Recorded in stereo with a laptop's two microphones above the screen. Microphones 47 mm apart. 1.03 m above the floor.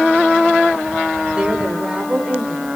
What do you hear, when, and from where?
1.3 s a woman speaking: 20° right (ahead or behind), 4 m